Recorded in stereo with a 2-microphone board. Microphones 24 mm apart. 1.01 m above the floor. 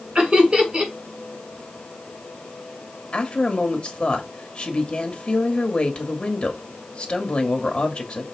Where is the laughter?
40° right (ahead or behind), 4 m.